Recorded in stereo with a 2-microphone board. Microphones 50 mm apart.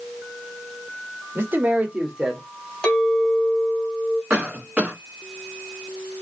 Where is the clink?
15° left (ahead or behind), 1.4 m.